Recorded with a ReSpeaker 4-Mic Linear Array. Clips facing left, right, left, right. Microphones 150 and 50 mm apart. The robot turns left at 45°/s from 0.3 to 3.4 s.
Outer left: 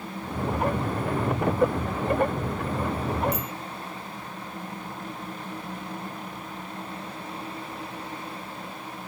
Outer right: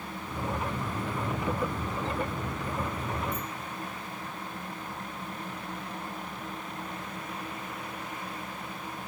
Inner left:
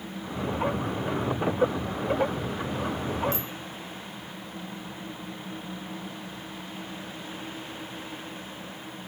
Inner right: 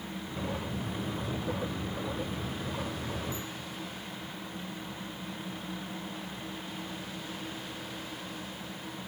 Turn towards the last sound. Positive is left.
turn(degrees=85)